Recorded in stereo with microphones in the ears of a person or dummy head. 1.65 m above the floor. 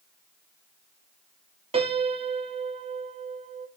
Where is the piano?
30° right (ahead or behind), 1.6 m.